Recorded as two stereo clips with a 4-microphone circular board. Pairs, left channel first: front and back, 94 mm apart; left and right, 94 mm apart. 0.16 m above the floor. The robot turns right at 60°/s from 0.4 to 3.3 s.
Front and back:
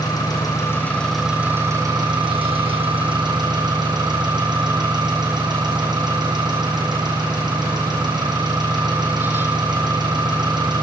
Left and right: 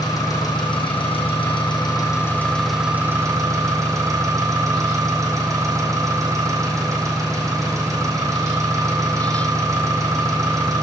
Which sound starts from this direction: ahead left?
An engine running, at 0.0 s.